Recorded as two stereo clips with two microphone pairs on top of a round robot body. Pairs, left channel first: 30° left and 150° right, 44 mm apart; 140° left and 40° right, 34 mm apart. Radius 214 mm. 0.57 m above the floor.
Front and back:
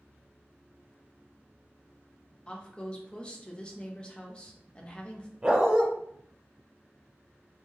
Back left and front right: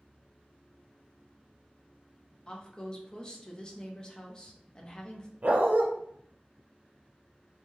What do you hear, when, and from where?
2.5 s a woman speaking: 90° left, 1.2 m
5.4 s a dog barking: 80° right, 0.6 m